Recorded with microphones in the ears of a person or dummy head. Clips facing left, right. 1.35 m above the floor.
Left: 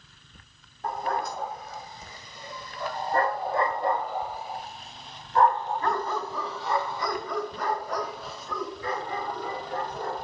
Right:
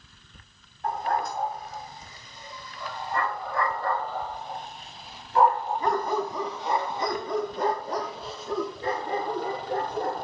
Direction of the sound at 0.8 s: 65° left (ahead or behind).